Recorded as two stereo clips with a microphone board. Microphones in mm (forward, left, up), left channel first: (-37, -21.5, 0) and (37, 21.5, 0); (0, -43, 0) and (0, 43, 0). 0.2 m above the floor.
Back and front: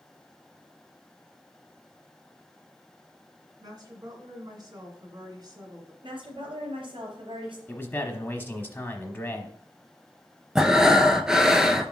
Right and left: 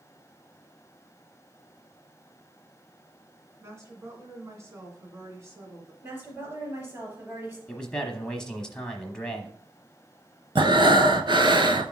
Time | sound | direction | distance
3.6 | a woman speaking | 40° left | 2 m
6.0 | a woman speaking | 20° left | 3 m
7.7 | a man speaking | 155° right | 1.0 m
10.6 | breathing | 115° left | 0.6 m